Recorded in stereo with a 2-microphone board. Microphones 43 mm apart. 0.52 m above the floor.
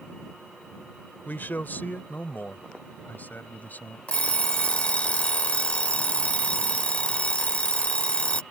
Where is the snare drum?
I don't hear a snare drum.